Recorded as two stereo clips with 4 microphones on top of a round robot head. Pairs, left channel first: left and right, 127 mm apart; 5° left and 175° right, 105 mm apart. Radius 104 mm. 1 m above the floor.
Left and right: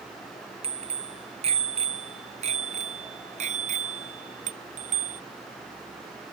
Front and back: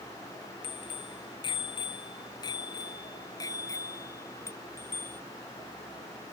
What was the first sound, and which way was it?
A bicycle bell, 45° right.